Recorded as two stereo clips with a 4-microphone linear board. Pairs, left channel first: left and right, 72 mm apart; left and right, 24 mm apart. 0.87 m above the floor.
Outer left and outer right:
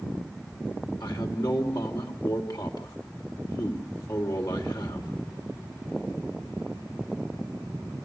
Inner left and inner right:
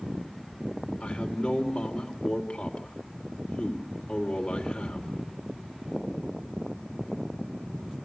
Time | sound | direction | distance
1.0 | a man speaking | 65° left (ahead or behind) | 2.5 m